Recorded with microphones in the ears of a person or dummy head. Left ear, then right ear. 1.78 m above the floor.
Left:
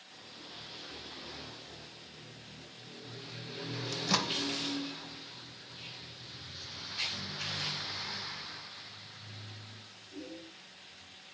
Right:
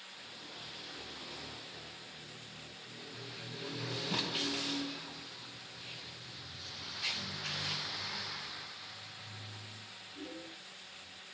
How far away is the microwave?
About 2 m.